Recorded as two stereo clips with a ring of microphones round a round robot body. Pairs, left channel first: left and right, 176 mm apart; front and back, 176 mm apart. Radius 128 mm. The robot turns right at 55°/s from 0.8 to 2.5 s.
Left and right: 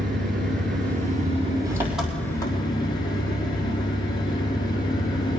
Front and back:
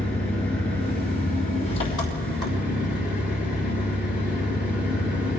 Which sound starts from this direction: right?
An engine running, at 0.0 s.